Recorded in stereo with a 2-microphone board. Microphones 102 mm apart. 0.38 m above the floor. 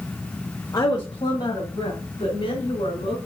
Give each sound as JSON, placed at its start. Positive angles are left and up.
{"t": 0.7, "sound": "a woman speaking", "side_deg": 35, "distance_m": 1.1}